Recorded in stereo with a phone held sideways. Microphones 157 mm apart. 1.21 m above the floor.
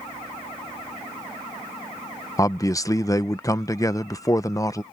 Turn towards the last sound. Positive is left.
turn(degrees=20)  # may be behind; listen again after turning